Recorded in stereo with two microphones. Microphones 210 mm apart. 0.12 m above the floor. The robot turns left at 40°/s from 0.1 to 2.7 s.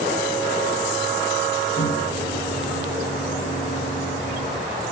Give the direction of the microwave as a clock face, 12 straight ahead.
9 o'clock.